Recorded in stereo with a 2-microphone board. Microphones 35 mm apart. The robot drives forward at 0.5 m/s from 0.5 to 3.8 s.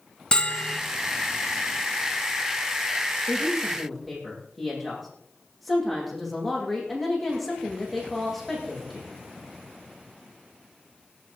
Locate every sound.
0.3 s a bell: 25° left (ahead or behind), 1.9 m
3.3 s a woman speaking: centre (ahead or behind), 7.5 m